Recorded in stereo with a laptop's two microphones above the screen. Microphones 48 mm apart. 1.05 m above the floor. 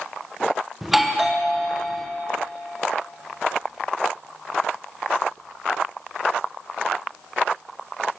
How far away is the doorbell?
About 0.6 m.